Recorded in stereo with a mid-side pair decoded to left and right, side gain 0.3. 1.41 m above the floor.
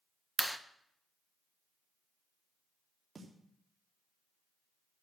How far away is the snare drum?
About 3 m.